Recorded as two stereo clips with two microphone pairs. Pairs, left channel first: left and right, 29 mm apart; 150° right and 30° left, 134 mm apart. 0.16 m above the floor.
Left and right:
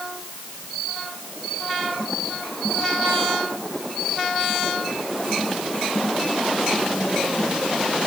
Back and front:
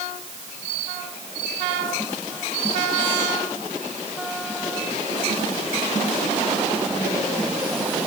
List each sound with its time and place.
Only background noise.